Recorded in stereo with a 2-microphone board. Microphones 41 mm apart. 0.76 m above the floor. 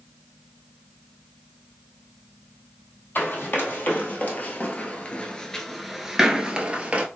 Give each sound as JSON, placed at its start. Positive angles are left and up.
{"t": 3.1, "sound": "running footsteps", "side_deg": 60, "distance_m": 1.5}